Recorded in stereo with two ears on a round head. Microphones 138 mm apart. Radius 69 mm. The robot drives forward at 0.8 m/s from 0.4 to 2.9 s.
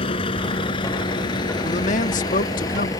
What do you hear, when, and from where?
0.0 s a vehicle: 35° left (ahead or behind); by 3.0 s 25° left (ahead or behind)
1.6 s a man speaking: 45° left (ahead or behind); by 2.9 s 60° left (ahead or behind)